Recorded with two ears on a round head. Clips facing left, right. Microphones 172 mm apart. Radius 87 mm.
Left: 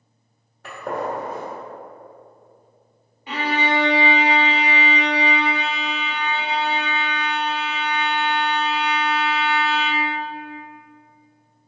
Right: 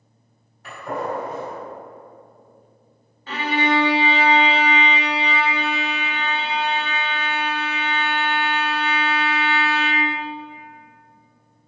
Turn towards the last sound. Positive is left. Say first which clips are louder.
# right 1 dB
turn(degrees=15)  # may be behind; listen again after turning